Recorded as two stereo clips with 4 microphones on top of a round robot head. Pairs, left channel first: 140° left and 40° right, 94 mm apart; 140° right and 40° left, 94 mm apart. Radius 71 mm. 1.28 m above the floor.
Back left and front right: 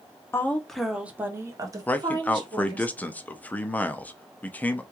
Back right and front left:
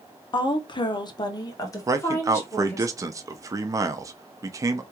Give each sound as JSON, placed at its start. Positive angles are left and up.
{"t": 0.3, "sound": "a woman speaking", "azimuth_deg": -160, "distance_m": 0.7}
{"t": 1.9, "sound": "a man speaking", "azimuth_deg": 75, "distance_m": 0.6}